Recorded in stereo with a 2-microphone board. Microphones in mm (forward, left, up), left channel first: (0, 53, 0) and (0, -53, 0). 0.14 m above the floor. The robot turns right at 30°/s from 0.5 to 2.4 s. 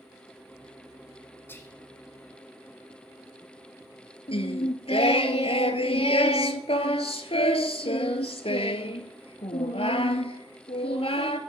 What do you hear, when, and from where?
1.5 s whispering: 20° left (ahead or behind), 1.2 m
4.3 s singing: 70° left (ahead or behind), 0.7 m